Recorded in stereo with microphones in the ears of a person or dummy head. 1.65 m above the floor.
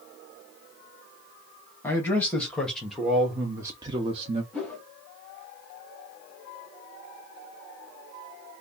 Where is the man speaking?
15° left (ahead or behind), 1.5 m; by 4.4 s 45° right (ahead or behind), 0.7 m.